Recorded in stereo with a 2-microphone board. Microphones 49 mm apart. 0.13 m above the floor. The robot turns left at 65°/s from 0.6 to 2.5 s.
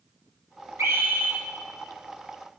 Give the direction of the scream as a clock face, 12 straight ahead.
4 o'clock.